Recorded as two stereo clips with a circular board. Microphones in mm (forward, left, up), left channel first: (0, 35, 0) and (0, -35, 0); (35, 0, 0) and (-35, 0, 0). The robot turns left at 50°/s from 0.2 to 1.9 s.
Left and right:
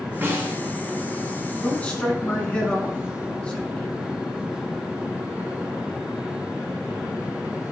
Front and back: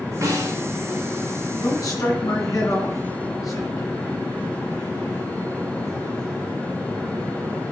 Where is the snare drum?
145° right, 2.5 m; by 0.6 s 165° right, 2.5 m.